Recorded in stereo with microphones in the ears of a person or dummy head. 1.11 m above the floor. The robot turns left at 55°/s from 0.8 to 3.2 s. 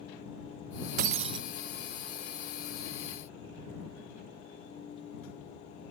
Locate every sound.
1.0 s breaking glass: 35° right (ahead or behind); by 1.4 s 20° right (ahead or behind)